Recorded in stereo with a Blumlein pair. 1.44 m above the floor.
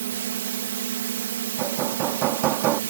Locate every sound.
0.0 s a drone: 60° right
1.6 s hammering: 35° right